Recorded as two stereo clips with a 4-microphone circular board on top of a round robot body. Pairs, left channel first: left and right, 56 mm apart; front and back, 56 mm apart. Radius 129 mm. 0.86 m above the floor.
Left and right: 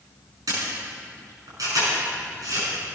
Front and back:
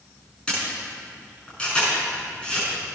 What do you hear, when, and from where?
0.5 s a camera shutter: 75° right, 7 m